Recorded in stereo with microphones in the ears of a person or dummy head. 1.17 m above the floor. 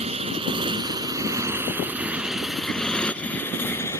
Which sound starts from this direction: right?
A motorcycle, at 0.0 s.